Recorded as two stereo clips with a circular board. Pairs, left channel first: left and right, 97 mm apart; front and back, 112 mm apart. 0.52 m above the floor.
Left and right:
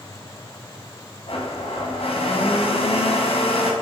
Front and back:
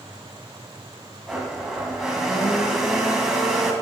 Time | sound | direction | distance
1.3 | a blender | 95° left | 2 m